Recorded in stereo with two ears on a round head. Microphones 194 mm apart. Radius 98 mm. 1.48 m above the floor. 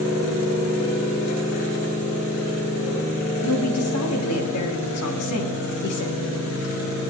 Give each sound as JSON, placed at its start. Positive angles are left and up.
{"t": 3.4, "sound": "a woman speaking", "side_deg": 75, "distance_m": 3.5}